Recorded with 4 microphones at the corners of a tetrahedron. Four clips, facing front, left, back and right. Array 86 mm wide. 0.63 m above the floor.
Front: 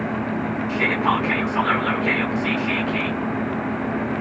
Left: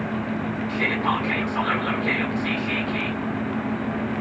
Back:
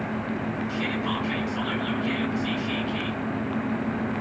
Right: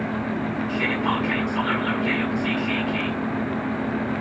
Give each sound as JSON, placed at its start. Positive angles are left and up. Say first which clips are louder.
{"t": 0.7, "sound": "whispering", "louder": "left 1 dB, front 11 dB", "azimuth_deg": 15, "distance_m": 1.7}